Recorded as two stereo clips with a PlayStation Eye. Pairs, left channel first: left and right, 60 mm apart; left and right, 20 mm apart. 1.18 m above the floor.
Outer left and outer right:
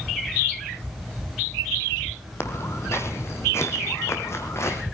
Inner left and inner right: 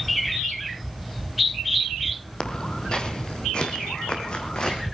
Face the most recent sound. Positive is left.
turn(degrees=45)  # may be behind; listen again after turning